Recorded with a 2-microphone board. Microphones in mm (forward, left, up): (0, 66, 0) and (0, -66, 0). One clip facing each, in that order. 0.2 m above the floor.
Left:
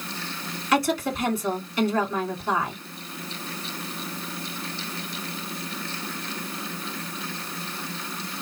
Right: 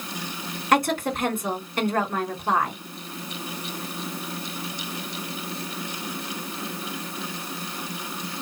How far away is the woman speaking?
About 2 m.